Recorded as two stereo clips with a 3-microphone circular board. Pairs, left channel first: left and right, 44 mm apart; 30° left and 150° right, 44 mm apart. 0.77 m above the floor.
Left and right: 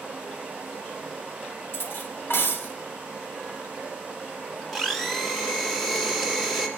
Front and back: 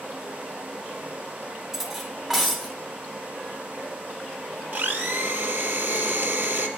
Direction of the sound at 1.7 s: 125° left.